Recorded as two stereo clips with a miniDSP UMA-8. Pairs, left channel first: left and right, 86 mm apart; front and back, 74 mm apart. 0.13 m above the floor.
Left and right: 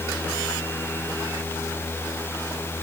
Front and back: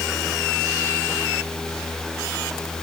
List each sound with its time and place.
Only background noise.